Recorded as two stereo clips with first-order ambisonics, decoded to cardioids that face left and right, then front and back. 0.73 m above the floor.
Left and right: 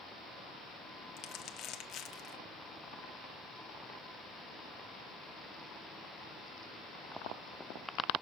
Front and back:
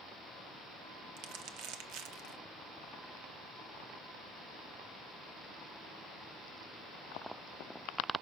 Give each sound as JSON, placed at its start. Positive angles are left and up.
{"t": 1.2, "sound": "crumpling", "azimuth_deg": 140, "distance_m": 0.7}